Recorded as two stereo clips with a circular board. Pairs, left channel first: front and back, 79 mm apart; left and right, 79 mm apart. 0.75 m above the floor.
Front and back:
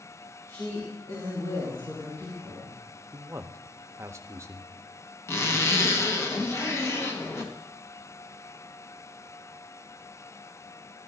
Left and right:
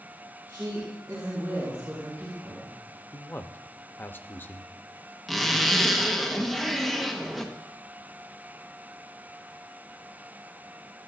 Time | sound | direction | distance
0.5 | a woman speaking | 50° right | 3.5 m
3.1 | a man speaking | 145° left | 0.7 m
5.3 | a zipper | 5° right | 1.1 m